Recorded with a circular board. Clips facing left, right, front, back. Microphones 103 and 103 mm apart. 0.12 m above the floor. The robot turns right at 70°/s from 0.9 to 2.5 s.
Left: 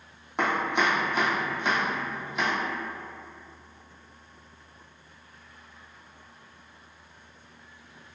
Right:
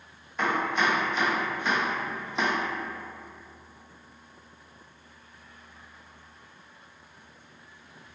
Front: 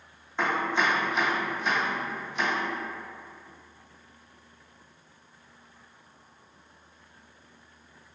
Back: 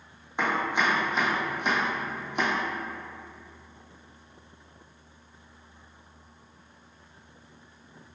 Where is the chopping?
105° left, 0.9 m; by 2.5 s 140° right, 0.9 m.